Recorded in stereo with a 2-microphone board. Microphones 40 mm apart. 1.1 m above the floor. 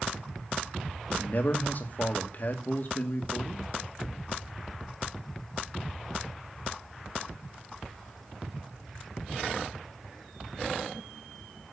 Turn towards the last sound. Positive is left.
turn(degrees=45)  # may be behind; listen again after turning